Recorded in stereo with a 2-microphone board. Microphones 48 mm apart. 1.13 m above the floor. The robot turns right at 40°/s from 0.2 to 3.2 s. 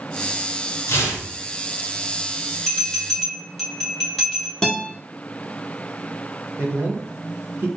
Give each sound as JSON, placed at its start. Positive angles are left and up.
{"t": 0.9, "sound": "tearing paper", "side_deg": 65, "distance_m": 1.0}
{"t": 2.7, "sound": "a bell", "side_deg": 25, "distance_m": 1.3}
{"t": 4.6, "sound": "a guitar", "side_deg": 10, "distance_m": 1.0}
{"t": 6.6, "sound": "a man speaking", "side_deg": -55, "distance_m": 1.3}